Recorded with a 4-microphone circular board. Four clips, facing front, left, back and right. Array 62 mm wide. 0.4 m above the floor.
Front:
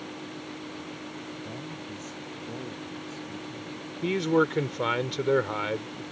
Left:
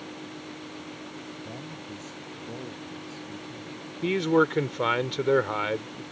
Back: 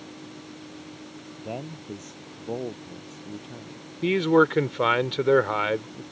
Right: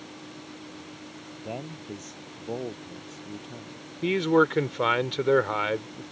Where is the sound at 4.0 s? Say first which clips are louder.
Right 1 dB, back 5 dB; 165° right.